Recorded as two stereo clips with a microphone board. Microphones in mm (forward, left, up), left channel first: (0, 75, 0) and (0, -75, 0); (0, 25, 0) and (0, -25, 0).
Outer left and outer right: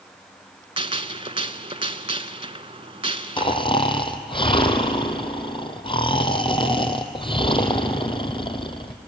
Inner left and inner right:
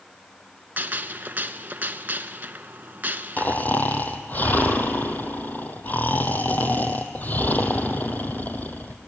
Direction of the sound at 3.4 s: 35° left (ahead or behind).